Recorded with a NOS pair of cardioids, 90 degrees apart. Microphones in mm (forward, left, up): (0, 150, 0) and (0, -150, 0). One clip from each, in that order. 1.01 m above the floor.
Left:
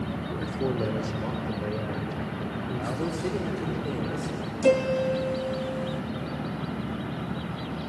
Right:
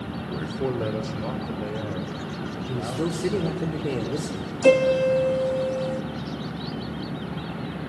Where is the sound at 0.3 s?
10° right, 2.5 m; by 3.7 s 5° right, 6.5 m.